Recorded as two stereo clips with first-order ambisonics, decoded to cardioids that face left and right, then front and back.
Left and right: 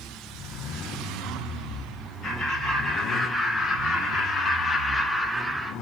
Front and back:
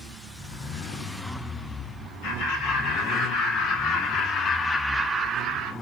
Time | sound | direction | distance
2.2 | laughter | 20° left | 3 m